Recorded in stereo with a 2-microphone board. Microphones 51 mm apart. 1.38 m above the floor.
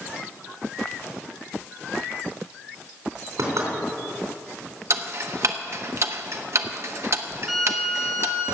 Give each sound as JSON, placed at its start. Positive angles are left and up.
{"t": 3.4, "sound": "knocking", "side_deg": -80, "distance_m": 3.5}
{"t": 4.9, "sound": "ticking", "side_deg": -55, "distance_m": 0.9}
{"t": 7.5, "sound": "a violin", "side_deg": -10, "distance_m": 4.0}